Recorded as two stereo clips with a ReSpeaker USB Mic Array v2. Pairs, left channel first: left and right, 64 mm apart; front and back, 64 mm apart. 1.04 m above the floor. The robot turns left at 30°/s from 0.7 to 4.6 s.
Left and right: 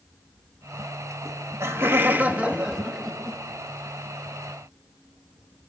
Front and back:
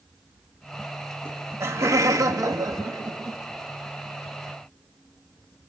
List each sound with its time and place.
1.2 s laughter: 125° right, 1.2 m; by 3.4 s 170° left, 1.2 m